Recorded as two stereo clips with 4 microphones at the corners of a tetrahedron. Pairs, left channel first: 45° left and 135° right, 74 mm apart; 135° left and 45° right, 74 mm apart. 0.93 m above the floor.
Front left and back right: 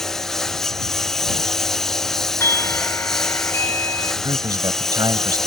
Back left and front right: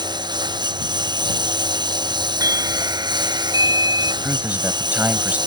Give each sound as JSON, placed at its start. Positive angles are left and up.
{"t": 0.0, "sound": "a lawn mower", "azimuth_deg": -40}
{"t": 2.4, "sound": "a doorbell", "azimuth_deg": -10}
{"t": 4.2, "sound": "a man speaking", "azimuth_deg": -110}